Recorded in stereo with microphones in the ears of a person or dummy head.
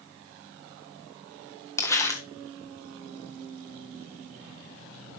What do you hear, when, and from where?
1.8 s crumpling: 15° left (ahead or behind), 1.2 m